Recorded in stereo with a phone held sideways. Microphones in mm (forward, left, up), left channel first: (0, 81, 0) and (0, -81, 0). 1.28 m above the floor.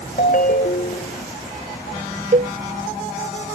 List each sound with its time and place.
0.2 s a ringtone: 60° left (ahead or behind)
2.3 s a cowbell: 50° right (ahead or behind)